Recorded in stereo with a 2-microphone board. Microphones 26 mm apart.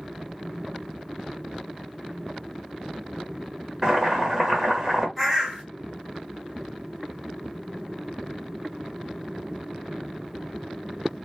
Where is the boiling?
5° right (ahead or behind), 1.4 m.